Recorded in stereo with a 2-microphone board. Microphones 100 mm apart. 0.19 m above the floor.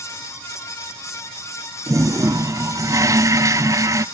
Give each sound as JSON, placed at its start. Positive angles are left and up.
{"t": 1.9, "sound": "a toilet flushing", "side_deg": -35, "distance_m": 0.6}